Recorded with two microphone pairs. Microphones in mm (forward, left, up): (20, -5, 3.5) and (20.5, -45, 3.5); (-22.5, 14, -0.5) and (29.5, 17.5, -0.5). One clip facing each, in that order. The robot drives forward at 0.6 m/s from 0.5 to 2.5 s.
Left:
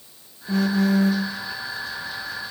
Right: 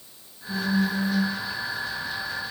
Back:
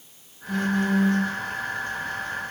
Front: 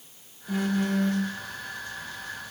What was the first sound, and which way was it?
A phone buzzing, 85° left.